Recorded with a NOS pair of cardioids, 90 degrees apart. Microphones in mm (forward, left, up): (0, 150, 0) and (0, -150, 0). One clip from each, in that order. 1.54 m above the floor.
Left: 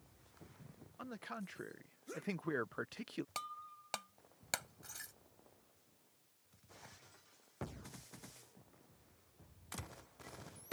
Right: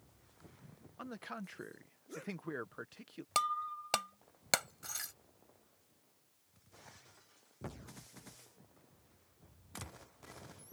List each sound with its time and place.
1.0 s a man speaking: 10° right; by 3.2 s 40° left
3.4 s breaking glass: 55° right